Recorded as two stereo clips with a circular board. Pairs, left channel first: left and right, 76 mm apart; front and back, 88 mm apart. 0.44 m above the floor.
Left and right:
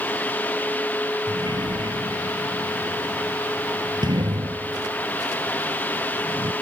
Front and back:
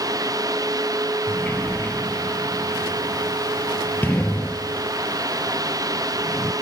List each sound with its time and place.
1.3 s a sliding door: 70° right